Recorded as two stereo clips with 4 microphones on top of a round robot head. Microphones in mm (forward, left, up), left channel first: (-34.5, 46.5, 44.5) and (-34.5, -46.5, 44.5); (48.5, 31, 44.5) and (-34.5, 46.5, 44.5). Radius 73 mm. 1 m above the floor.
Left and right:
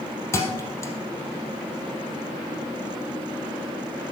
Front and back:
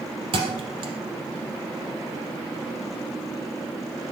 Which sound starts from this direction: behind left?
A thud, at 0.3 s.